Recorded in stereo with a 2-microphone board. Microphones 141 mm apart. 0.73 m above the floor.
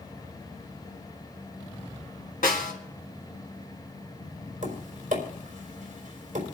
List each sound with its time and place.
2.4 s a snare drum: 80° left, 2 m
4.6 s tapping: 60° right (ahead or behind), 3.5 m